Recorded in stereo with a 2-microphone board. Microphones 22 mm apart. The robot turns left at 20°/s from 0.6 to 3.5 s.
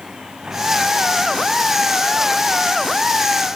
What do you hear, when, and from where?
0.0 s a vehicle: 40° right (ahead or behind); by 3.6 s 10° left (ahead or behind)